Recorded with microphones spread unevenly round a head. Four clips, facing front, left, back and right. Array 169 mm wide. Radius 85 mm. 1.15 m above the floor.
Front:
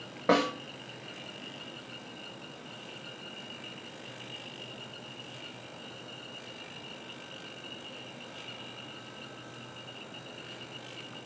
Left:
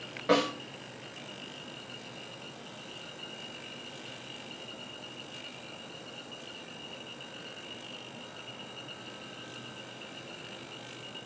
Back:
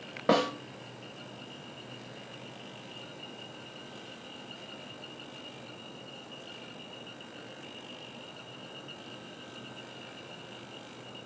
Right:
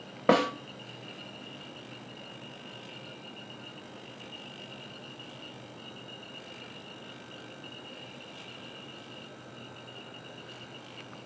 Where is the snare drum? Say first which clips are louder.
Right 2 dB, even; 100° right, 0.6 m.